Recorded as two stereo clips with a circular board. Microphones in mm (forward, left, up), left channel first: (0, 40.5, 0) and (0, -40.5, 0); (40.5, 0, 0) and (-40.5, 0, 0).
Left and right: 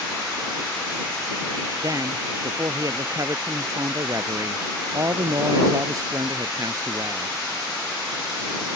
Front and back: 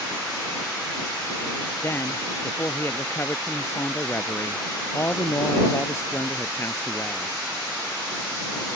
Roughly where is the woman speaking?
Ahead right.